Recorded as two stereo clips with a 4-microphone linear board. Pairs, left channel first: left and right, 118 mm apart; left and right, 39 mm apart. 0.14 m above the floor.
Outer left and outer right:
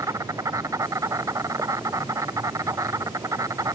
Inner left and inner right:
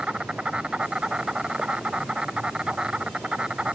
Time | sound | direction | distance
0.0 | an insect | 25° right (ahead or behind) | ?